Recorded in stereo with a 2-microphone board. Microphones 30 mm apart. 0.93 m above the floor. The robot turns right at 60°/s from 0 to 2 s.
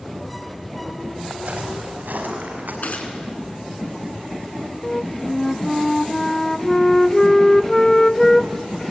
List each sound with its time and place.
1.3 s footsteps: 55° right (ahead or behind), 6.5 m; by 2.7 s 80° right, 7.5 m
2.8 s a gunshot: 65° left (ahead or behind), 3 m
4.8 s a flute: 20° left (ahead or behind), 0.5 m